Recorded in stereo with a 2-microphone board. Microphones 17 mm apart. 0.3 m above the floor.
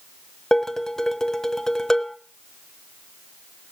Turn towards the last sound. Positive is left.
turn(degrees=25)  # may be behind; listen again after turning